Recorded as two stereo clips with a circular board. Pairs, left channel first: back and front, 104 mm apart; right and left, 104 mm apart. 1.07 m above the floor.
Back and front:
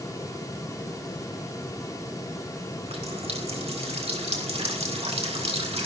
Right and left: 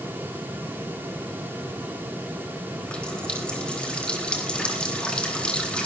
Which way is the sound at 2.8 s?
10° right.